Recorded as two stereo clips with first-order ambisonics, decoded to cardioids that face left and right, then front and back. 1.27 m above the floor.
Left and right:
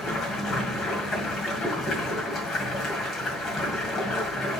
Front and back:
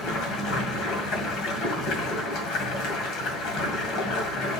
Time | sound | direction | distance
0.0 | running water | 35° left | 1.9 m